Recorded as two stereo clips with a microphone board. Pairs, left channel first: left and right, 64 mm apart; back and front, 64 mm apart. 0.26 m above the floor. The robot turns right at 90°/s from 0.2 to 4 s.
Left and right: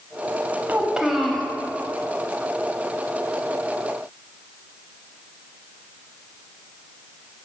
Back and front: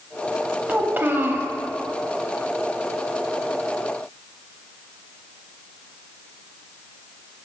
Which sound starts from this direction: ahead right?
A child speaking, at 0.7 s.